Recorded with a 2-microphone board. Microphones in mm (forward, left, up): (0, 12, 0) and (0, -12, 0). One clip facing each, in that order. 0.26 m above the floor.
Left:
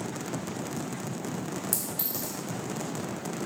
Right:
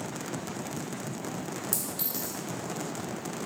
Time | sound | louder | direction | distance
1.7 | a clink | even | 10° right (ahead or behind) | 1.1 m